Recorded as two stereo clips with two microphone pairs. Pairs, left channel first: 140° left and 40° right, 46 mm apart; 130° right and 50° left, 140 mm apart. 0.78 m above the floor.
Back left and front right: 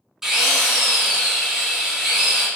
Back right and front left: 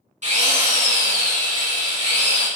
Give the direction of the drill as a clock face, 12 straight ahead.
11 o'clock.